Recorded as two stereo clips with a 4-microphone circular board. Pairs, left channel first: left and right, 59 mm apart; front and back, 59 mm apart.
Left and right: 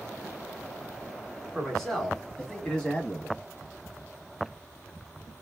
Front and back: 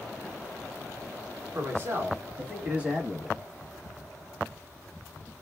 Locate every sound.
1.6 s a man speaking: 175° left, 1.4 m; by 3.4 s 100° left, 1.1 m